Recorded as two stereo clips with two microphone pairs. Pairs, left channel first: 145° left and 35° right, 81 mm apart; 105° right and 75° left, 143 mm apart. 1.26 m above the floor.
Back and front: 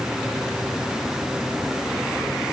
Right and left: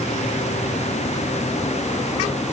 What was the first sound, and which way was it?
Only background noise.